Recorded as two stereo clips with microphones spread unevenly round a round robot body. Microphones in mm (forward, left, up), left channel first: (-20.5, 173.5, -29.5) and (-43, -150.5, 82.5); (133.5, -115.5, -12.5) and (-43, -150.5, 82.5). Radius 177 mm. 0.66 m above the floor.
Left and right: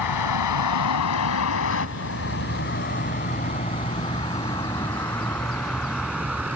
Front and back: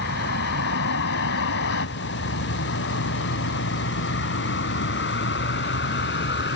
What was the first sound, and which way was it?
A vehicle, 55° left.